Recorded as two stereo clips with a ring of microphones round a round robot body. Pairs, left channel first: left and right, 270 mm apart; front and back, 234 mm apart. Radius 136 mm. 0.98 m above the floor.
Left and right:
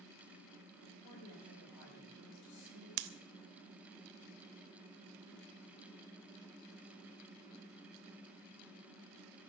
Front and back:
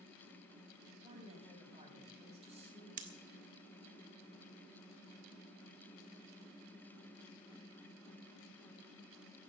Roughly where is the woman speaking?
Behind left.